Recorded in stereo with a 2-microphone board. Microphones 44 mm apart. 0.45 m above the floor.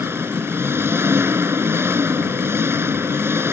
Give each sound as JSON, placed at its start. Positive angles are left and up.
{"t": 0.0, "sound": "an engine running", "side_deg": -65}